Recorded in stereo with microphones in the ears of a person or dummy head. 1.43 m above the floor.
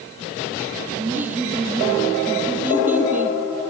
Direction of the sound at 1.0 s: 10° right (ahead or behind).